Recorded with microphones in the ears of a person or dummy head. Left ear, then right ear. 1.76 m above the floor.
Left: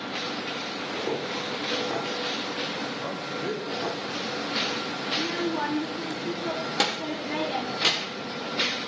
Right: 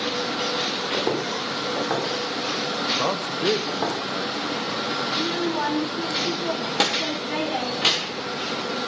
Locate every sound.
0.9 s footsteps: 65° right (ahead or behind), 4 m; by 4.0 s 50° right (ahead or behind), 3.5 m
3.0 s a man speaking: 45° right (ahead or behind), 1.1 m
5.1 s a child speaking: centre (ahead or behind), 1.0 m